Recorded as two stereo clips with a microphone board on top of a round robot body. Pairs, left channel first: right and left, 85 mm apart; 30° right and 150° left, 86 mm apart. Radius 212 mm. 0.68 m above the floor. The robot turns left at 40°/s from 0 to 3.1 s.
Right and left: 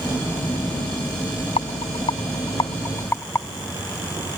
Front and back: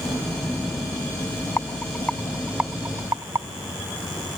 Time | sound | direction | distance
1.6 | a rattle | 95° right | ?